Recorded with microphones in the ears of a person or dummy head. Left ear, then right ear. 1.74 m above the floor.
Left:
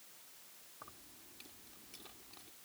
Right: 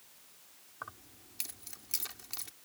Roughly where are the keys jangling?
Right.